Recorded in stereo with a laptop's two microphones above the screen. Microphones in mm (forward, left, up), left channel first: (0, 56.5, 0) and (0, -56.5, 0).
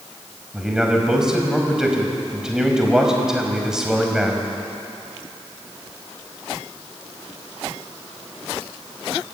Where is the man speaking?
5° right (ahead or behind), 5 m.